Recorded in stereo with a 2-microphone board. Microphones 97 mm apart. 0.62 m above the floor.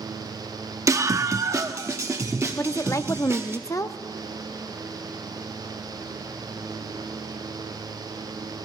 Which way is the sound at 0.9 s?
30° right (ahead or behind).